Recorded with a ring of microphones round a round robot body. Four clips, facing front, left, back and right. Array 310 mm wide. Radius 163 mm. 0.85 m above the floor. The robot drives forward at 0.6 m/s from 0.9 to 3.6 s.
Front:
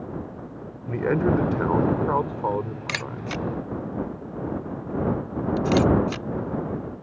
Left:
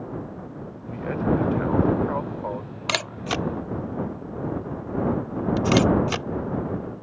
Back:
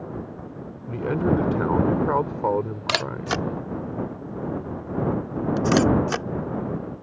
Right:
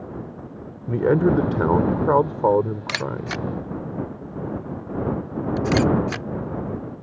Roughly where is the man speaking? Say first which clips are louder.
Right 7 dB, front 1 dB; right.